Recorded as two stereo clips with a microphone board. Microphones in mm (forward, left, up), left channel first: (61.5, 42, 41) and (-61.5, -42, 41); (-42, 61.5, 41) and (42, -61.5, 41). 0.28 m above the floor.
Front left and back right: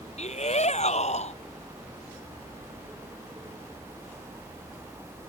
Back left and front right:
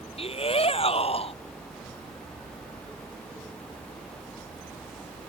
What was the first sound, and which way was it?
A shout, 75° left.